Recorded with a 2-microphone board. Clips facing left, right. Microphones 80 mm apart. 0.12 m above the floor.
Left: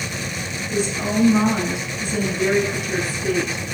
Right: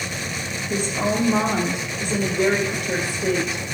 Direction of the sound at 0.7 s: 55° right (ahead or behind).